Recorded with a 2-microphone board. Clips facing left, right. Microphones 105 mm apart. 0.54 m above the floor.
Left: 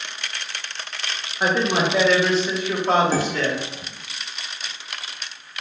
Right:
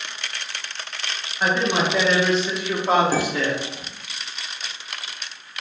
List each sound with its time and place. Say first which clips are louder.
1.4 s a man speaking: left 1 dB; 15° left (ahead or behind), 0.9 m; by 3.6 s 15° right (ahead or behind), 1.1 m
3.1 s dishes clattering: even; 15° right (ahead or behind), 0.9 m